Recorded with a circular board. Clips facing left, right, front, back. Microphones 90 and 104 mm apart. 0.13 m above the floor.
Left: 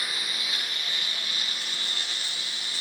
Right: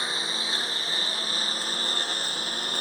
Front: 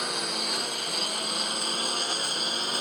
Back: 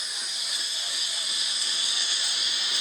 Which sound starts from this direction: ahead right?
A lawn mower, at 0.0 s.